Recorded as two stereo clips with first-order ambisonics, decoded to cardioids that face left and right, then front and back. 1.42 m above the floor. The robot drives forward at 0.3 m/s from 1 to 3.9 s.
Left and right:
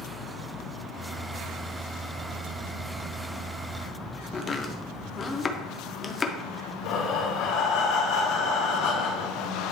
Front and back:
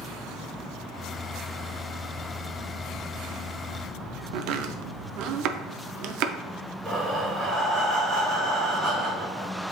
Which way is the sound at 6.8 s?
105° left.